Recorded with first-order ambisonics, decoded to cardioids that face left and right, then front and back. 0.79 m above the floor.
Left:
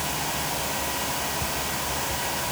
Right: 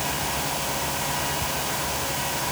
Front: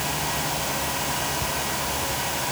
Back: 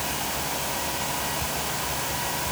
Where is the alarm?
I don't hear an alarm.